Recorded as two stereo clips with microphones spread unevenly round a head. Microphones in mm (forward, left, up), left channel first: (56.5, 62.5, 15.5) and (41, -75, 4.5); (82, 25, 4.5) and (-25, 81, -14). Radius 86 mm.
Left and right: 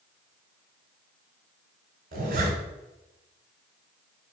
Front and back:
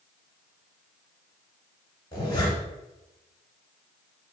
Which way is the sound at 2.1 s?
85° right.